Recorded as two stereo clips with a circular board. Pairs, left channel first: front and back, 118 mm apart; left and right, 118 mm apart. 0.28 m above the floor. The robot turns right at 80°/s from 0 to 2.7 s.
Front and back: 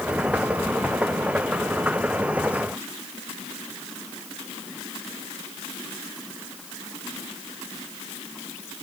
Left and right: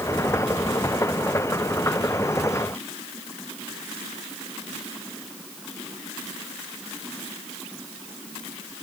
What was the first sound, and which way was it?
Only background noise.